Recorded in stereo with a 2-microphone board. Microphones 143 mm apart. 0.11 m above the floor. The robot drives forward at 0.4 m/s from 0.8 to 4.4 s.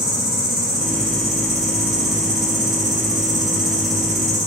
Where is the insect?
40° right (ahead or behind), 1.3 m; by 4.5 s 50° right (ahead or behind), 1.1 m.